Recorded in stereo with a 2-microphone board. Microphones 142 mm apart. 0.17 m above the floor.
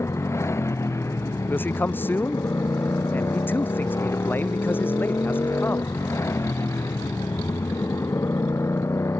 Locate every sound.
0.0 s a motorcycle: 20° left (ahead or behind)
1.5 s a man speaking: 15° left (ahead or behind)